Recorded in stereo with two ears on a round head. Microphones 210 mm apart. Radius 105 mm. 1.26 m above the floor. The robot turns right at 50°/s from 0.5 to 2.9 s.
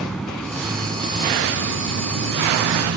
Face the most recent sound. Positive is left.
turn(degrees=-60)